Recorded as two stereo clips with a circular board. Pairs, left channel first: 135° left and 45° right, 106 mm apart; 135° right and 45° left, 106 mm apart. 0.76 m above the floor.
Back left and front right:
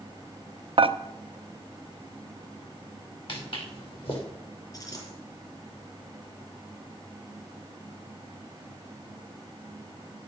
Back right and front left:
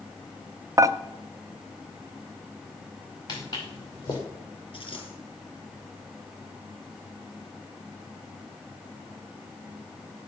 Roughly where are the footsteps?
Behind.